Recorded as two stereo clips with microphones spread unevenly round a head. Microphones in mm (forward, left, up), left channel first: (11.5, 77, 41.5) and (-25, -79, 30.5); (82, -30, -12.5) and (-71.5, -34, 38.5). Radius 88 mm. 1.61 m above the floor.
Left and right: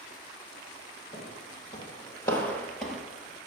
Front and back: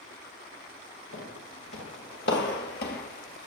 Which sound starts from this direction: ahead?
Footsteps, at 1.1 s.